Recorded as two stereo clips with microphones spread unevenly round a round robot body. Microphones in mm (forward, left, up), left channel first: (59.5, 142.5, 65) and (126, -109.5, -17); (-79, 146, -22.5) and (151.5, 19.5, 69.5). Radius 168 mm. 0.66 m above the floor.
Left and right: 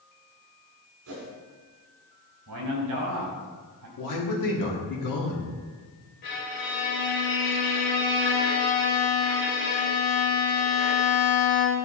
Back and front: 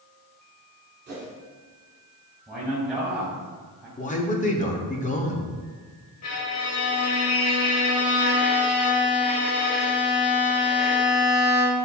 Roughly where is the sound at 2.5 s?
Behind right.